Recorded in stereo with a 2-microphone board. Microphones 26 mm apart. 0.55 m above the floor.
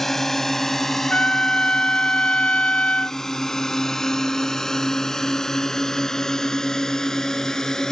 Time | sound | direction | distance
0.0 | a drone | 10° left (ahead or behind) | ?
1.1 | a trumpet | 55° left (ahead or behind) | ?